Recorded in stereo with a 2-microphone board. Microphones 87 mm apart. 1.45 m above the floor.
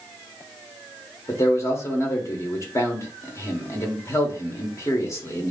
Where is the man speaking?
35° left (ahead or behind), 1.2 m.